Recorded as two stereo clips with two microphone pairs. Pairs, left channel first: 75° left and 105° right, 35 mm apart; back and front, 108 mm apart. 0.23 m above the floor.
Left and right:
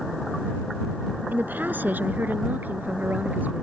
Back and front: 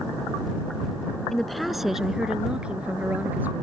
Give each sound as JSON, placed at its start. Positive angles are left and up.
{"t": 1.3, "sound": "a woman speaking", "azimuth_deg": -95}